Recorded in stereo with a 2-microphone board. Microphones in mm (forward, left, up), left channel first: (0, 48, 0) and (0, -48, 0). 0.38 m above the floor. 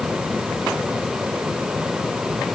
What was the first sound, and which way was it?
Only background noise.